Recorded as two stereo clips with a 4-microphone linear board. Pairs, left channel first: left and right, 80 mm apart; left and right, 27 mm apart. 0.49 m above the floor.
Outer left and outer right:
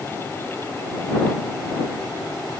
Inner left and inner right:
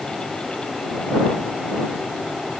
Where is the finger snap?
I don't hear a finger snap.